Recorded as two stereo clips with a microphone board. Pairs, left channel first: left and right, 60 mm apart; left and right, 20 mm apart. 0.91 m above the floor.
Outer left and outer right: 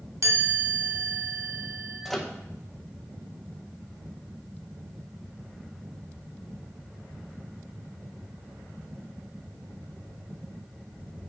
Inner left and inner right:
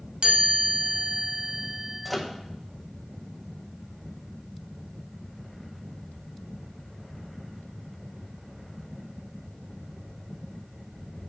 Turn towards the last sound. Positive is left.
turn(degrees=5)  # may be behind; listen again after turning